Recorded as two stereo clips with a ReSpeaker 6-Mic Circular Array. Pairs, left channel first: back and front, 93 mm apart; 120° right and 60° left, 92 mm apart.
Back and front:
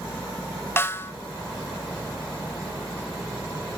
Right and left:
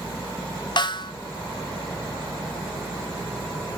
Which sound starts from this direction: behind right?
A snare drum, at 0.8 s.